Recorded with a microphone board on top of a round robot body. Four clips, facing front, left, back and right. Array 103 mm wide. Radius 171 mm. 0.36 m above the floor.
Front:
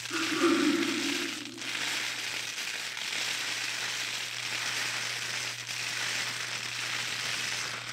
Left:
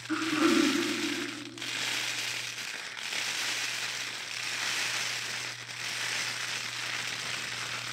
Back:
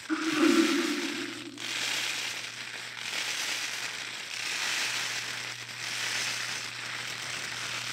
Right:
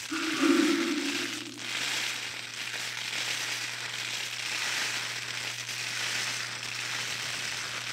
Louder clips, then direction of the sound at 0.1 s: Even, back 3 dB; 150° left.